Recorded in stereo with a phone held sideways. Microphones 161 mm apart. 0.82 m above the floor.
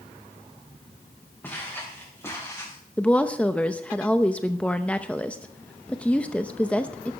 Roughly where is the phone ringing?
I don't hear a phone ringing.